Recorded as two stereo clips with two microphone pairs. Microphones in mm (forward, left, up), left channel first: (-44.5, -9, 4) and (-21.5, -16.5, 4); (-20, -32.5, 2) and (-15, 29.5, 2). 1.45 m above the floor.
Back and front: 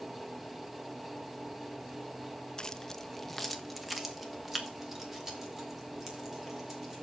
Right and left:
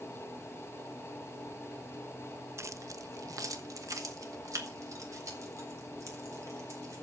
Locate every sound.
2.6 s keys jangling: 110° left, 0.6 m; by 7.0 s 55° left, 4 m